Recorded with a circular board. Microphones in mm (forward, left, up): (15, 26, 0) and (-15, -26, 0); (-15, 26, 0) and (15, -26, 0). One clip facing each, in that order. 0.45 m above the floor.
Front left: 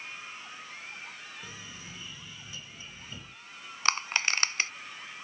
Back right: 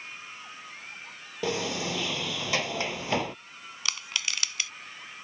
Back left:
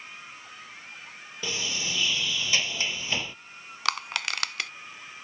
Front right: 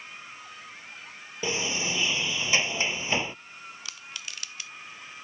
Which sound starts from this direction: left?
Crushing, at 3.9 s.